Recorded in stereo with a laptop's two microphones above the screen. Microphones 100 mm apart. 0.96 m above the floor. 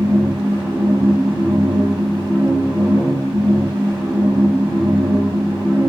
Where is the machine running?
35° right (ahead or behind), 1.6 m.